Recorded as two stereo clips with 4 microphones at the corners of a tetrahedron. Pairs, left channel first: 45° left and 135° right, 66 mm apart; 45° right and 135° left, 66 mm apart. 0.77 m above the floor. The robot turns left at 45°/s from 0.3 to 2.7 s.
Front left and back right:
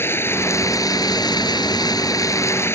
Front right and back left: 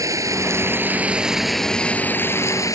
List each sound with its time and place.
0.0 s running water: 100° left; by 2.8 s 10° right